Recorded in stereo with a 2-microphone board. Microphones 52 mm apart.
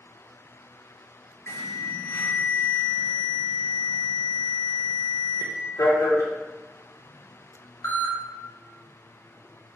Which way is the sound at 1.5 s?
75° left (ahead or behind).